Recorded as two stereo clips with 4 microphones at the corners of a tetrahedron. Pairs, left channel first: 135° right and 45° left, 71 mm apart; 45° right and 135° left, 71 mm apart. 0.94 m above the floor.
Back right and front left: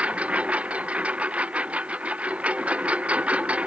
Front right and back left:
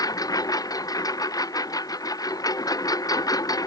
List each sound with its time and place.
0.0 s a lawn mower: 25° right